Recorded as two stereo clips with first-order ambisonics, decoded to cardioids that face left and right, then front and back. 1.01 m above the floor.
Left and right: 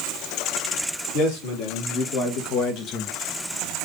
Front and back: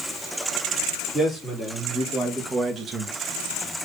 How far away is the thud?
I don't hear a thud.